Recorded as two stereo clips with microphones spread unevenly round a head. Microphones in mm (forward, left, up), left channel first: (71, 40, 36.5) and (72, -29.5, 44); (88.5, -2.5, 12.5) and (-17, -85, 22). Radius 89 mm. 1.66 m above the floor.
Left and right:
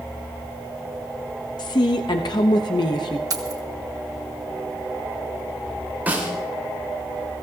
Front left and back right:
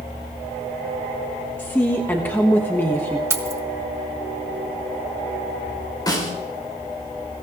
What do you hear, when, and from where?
1.6 s a woman speaking: 120° left, 0.9 m
3.3 s keys jangling: 80° right, 1.1 m
6.1 s a snare drum: 20° right, 4.5 m